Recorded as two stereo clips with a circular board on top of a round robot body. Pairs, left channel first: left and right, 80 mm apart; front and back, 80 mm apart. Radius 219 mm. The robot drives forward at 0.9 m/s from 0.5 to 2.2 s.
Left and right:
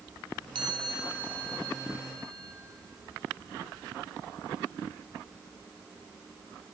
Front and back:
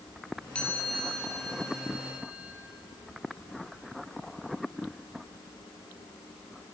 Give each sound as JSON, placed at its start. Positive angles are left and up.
{"t": 0.6, "sound": "a chime", "azimuth_deg": -75, "distance_m": 3.5}